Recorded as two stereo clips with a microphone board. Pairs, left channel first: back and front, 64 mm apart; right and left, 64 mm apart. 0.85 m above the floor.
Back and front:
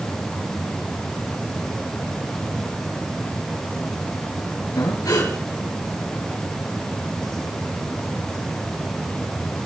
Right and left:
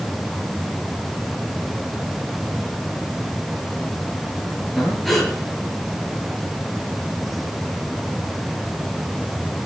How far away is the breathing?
About 5 m.